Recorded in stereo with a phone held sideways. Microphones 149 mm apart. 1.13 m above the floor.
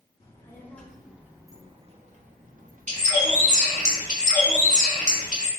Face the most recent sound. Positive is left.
turn(degrees=-50)  # may be behind; listen again after turning